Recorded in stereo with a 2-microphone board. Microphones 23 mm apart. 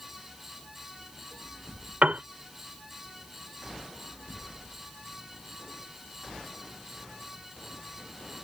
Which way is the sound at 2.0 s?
75° right (ahead or behind).